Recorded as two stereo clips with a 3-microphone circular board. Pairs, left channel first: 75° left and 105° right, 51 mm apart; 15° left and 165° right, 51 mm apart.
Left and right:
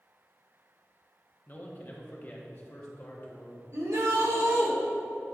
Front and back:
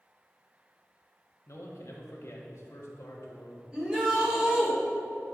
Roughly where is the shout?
Right.